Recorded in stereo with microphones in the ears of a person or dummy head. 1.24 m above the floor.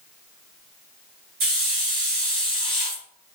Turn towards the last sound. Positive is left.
turn(degrees=-55)  # may be behind; listen again after turning